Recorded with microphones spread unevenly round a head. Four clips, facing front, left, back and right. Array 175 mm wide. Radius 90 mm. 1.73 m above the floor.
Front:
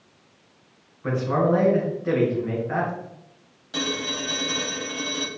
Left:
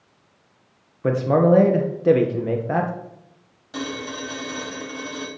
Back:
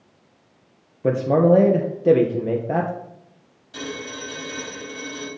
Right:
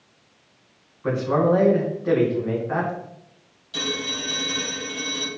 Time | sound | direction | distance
1.0 | a man speaking | 145° left | 1.8 m
3.7 | a phone ringing | 35° left | 5.5 m